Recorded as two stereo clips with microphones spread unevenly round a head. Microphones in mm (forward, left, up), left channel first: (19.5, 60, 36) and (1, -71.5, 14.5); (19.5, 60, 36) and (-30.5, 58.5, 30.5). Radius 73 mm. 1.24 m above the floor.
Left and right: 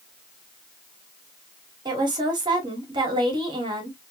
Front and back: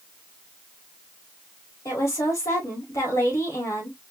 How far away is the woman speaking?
About 2.5 m.